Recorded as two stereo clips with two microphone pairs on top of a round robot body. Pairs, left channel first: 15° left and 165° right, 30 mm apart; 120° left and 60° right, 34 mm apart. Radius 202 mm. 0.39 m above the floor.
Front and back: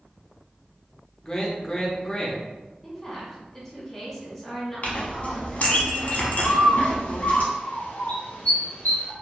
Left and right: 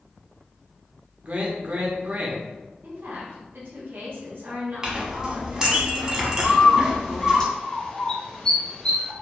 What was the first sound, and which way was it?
A man speaking, 35° right.